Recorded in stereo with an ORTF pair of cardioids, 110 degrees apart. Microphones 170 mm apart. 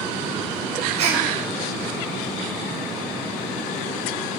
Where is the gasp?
45° right, 5 m.